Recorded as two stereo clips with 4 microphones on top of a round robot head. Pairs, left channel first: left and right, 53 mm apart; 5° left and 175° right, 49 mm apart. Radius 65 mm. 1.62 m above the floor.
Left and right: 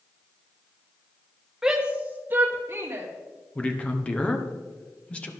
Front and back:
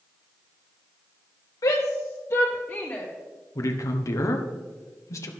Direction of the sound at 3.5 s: 20° left.